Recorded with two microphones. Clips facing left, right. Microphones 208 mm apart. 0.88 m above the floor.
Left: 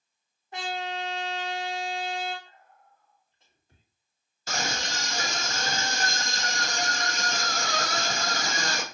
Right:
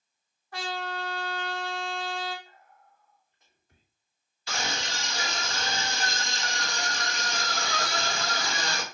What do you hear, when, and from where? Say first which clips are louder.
0.5 s a trumpet: left 1 dB; 20° left (ahead or behind), 0.8 m
2.5 s whispering: even; 30° left (ahead or behind), 1.8 m
4.5 s a scream: left 2 dB; 45° left (ahead or behind), 0.7 m